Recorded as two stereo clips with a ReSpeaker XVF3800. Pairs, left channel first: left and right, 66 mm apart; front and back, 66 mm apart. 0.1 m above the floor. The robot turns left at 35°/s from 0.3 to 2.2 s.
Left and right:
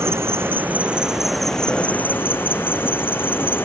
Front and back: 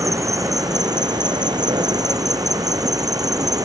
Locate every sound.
0.0 s an insect: 140° right; by 3.7 s 150° left